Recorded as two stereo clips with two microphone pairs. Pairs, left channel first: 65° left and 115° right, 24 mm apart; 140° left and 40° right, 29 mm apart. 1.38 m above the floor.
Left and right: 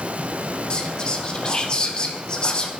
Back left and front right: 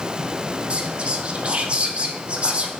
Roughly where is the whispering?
Ahead.